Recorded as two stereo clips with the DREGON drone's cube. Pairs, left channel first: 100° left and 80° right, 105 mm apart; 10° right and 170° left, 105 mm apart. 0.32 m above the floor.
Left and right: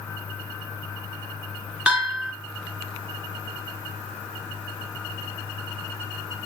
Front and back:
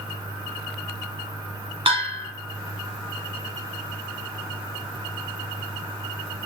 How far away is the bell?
About 0.6 m.